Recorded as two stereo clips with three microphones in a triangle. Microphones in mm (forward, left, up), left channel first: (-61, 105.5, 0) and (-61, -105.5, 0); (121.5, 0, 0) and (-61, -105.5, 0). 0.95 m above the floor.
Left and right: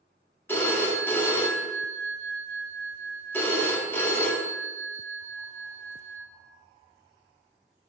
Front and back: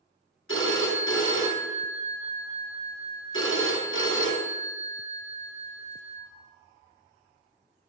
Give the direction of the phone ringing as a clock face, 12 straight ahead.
12 o'clock.